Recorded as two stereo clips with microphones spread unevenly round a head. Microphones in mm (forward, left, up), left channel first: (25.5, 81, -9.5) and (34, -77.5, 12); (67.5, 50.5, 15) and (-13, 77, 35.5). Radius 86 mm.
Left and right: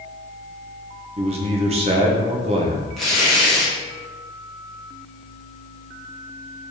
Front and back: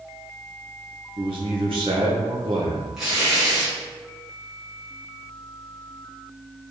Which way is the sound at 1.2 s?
140° right.